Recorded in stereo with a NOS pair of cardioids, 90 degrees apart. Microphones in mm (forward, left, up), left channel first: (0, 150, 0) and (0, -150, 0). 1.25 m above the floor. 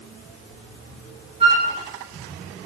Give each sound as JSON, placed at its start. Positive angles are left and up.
{"t": 1.4, "sound": "a flute", "azimuth_deg": -20, "distance_m": 1.0}